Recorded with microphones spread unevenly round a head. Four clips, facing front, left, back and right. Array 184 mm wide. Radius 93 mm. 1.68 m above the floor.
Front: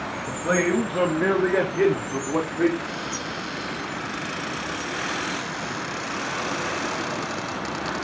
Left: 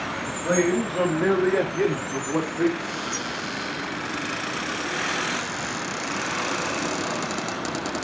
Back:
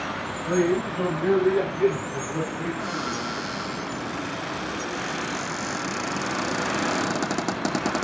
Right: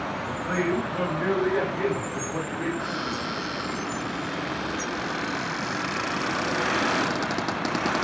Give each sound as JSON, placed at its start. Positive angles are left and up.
{"t": 0.3, "sound": "a man speaking", "azimuth_deg": 30, "distance_m": 3.0}
{"t": 2.8, "sound": "a cupboard door", "azimuth_deg": -165, "distance_m": 2.5}